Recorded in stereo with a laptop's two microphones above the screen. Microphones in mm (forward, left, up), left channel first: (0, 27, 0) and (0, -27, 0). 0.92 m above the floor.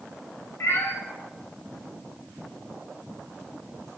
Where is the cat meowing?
50° left (ahead or behind), 0.7 m.